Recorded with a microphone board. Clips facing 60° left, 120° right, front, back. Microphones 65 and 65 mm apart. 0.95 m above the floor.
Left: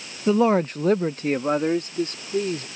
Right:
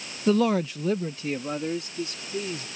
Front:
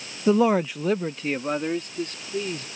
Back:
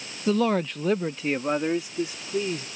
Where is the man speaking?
15° right; by 2.6 s 100° left.